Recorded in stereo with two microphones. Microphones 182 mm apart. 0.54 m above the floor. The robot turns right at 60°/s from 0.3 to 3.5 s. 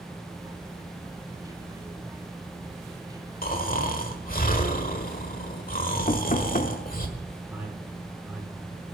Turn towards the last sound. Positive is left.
turn(degrees=-5)  # may be behind; listen again after turning